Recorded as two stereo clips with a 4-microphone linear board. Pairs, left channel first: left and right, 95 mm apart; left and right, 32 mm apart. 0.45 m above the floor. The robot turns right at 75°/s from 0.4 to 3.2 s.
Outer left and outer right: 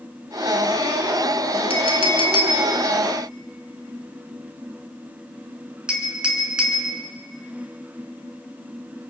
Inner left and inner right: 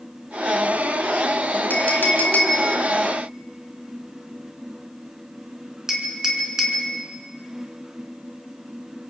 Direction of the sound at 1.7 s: 75° left (ahead or behind).